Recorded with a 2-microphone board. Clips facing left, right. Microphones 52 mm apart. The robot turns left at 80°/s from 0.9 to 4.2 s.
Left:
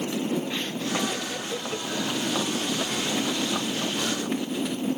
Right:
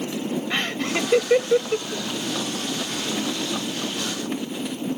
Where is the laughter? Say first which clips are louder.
Right 4 dB; 75° right (ahead or behind); by 2.1 s 10° right (ahead or behind).